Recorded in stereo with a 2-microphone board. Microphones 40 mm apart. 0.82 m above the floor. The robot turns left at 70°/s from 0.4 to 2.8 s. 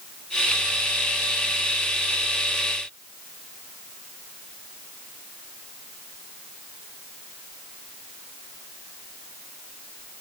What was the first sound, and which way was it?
Only background noise.